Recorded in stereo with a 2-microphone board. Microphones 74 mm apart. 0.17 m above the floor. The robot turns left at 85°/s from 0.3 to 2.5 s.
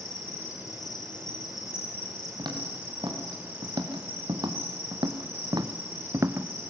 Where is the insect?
160° left, 5.5 m; by 6.7 s 25° right, 5.5 m.